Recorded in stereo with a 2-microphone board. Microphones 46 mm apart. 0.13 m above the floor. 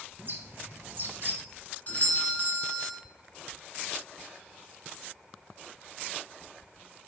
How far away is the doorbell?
About 1.8 m.